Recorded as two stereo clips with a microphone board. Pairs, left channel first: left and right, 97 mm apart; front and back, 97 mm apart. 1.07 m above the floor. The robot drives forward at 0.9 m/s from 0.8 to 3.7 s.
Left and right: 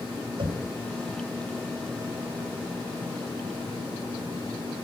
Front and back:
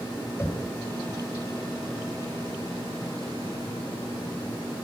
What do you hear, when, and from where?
0.4 s knocking: 65° right, 4 m